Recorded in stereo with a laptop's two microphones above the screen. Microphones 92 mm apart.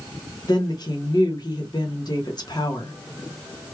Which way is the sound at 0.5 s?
55° left (ahead or behind).